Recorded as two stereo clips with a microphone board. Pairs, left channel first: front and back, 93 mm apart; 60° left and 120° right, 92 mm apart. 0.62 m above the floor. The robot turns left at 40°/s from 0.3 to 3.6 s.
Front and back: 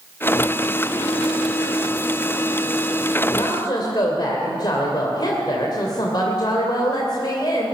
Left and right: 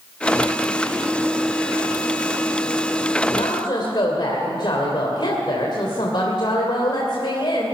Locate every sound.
3.3 s a woman speaking: 45° left, 2.5 m; by 7.7 s 35° left, 2.5 m